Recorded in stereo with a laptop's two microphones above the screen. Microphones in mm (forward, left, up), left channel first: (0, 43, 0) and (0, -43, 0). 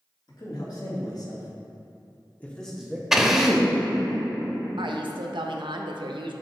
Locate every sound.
0.3 s a man speaking: 50° left (ahead or behind), 1.9 m; by 3.0 s 10° right (ahead or behind), 0.8 m
3.1 s a drill: 5° right (ahead or behind), 0.6 m
4.8 s a woman speaking: 75° right (ahead or behind), 0.6 m